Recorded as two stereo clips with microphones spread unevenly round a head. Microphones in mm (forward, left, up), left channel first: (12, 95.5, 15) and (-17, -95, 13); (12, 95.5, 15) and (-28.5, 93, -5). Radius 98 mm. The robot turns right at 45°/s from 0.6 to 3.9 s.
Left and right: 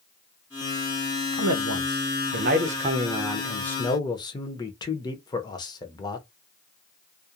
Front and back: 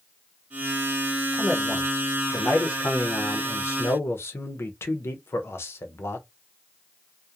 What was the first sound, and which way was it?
A man speaking, 105° right.